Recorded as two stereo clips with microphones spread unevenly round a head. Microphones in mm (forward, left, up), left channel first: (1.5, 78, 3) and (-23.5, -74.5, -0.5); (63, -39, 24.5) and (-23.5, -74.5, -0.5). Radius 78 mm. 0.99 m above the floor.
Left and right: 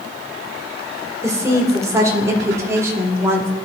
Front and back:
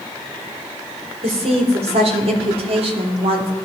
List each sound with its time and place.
1.2 s a woman speaking: 170° right, 4 m; by 3.5 s 175° right, 2.5 m